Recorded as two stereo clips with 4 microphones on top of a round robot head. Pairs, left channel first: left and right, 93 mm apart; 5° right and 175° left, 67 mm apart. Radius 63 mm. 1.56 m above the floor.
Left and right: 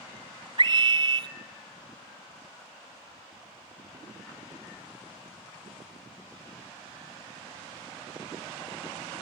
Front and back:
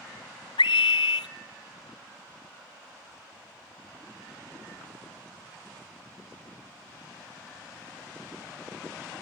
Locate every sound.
0.6 s a scream: 35° right, 0.5 m